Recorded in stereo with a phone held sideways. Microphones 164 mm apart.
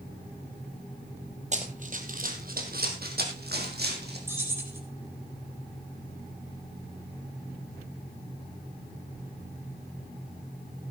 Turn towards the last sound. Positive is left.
turn(degrees=-15)  # may be behind; listen again after turning